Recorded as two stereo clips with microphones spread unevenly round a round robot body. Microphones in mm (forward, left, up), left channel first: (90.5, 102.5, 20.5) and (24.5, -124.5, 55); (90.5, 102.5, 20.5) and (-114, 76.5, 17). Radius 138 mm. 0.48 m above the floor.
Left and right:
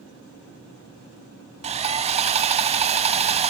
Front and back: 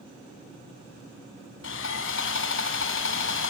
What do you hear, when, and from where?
1.6 s sawing: 40° right, 1.4 m